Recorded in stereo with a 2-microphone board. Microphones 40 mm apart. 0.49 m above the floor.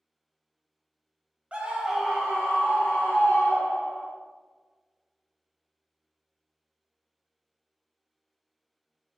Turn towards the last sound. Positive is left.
turn(degrees=35)  # may be behind; listen again after turning